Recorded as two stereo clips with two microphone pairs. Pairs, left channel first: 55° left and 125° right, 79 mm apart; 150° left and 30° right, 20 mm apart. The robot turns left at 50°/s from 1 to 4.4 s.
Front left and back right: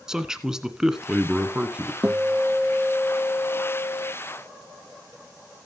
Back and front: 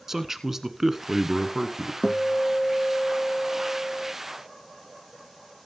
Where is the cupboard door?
No cupboard door in this recording.